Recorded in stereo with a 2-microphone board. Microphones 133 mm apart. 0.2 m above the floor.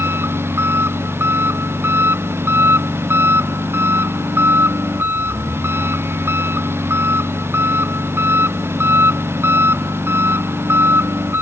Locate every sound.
0.0 s an engine running: 15° right (ahead or behind)